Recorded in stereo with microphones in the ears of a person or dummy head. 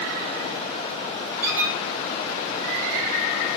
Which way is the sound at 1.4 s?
10° right (ahead or behind).